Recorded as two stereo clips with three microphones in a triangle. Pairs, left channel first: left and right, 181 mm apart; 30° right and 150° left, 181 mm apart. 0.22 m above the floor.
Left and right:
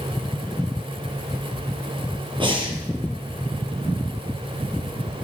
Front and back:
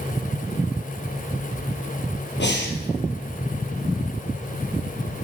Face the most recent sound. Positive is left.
turn(degrees=-30)